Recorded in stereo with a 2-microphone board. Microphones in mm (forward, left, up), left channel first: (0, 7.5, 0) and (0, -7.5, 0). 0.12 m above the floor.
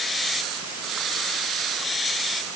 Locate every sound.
Only background noise.